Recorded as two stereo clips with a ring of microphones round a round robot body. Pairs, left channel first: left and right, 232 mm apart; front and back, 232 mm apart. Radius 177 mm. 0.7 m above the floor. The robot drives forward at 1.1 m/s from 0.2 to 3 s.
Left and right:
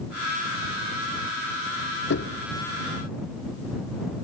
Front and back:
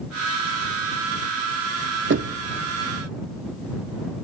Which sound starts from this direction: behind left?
Knocking, at 2.1 s.